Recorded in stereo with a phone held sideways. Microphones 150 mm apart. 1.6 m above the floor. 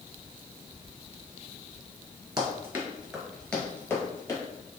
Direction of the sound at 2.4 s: 25° right (ahead or behind).